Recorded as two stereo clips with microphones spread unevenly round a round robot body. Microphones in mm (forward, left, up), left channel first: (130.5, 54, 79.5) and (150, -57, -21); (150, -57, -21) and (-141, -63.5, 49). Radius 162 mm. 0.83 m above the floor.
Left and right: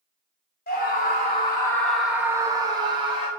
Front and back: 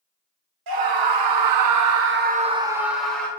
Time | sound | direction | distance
0.7 | a scream | 155° left | 1.3 m